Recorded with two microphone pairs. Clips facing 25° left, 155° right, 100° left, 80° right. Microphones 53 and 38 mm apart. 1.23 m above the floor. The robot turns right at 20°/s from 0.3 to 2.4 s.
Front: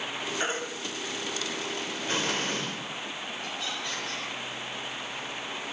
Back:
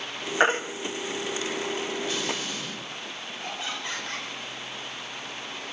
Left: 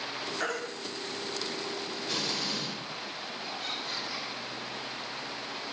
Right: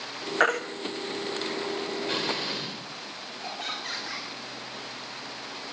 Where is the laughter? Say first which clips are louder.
Back 3 dB, right 4 dB; 90° right, 5.5 m.